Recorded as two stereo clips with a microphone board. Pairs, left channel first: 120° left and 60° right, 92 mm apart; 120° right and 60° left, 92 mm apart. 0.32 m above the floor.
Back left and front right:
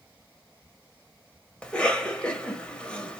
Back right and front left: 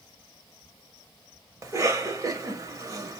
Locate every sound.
1.6 s a cough: 45° left, 1.2 m